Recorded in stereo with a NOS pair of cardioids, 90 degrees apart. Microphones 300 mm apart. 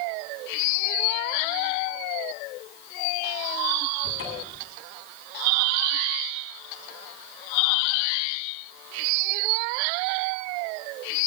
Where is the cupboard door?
45° left, 9.5 m.